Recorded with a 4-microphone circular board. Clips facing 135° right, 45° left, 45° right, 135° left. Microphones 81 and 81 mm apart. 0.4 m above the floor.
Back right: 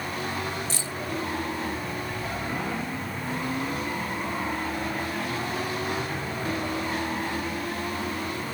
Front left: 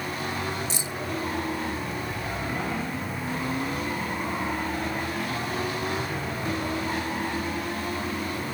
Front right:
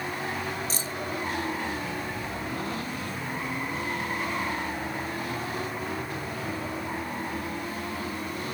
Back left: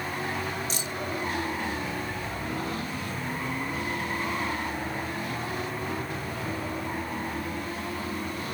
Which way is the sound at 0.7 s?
20° right.